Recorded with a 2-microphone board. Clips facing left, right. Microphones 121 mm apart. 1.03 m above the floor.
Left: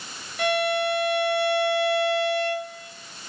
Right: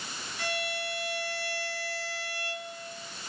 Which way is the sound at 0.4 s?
60° left (ahead or behind).